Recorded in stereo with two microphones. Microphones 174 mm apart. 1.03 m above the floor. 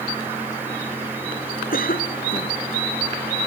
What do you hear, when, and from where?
1.7 s a cough: 55° left (ahead or behind)